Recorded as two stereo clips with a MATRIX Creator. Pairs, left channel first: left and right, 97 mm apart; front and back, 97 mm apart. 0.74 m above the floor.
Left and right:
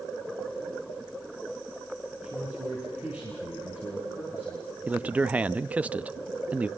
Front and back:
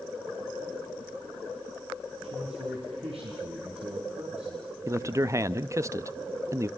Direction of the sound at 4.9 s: 155° right.